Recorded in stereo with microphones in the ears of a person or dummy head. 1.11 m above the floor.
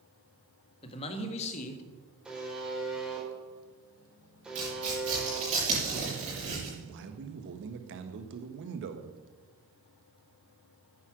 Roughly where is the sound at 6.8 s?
Right.